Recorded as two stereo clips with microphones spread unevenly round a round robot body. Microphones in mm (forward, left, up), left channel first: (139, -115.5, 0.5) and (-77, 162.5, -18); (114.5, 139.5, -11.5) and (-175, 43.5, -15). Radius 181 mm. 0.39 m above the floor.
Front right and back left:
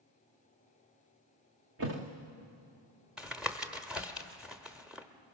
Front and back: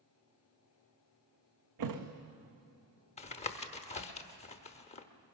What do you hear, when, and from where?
1.8 s a thud: 175° right, 1.8 m
3.2 s tapping: 50° left, 0.9 m